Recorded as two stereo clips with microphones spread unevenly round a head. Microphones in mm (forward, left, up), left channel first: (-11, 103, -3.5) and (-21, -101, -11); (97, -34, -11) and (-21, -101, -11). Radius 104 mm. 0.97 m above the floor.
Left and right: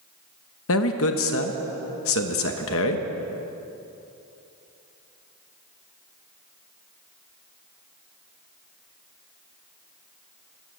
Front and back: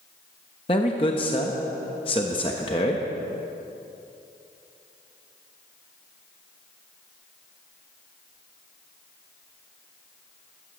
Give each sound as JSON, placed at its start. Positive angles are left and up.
{"t": 0.7, "sound": "a man speaking", "azimuth_deg": 90, "distance_m": 1.1}